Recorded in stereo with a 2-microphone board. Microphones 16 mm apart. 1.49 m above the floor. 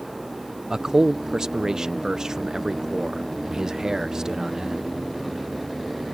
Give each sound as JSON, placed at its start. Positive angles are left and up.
{"t": 0.7, "sound": "a man speaking", "side_deg": -45}